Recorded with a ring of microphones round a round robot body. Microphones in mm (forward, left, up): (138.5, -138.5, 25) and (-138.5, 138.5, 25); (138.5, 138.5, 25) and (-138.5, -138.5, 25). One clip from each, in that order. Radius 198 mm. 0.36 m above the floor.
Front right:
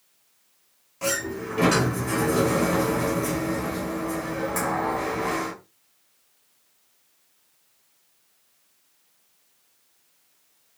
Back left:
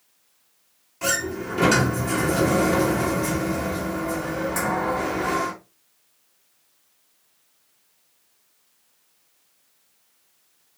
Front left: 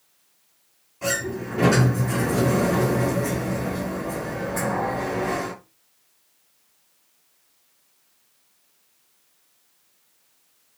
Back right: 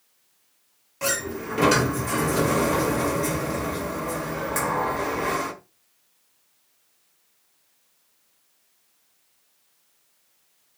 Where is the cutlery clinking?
No cutlery clinking in this recording.